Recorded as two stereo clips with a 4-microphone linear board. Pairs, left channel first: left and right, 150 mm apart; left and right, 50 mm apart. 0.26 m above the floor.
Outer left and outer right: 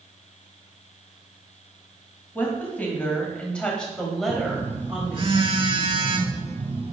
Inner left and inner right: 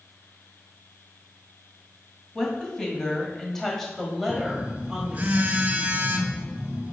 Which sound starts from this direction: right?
A phone buzzing, at 4.3 s.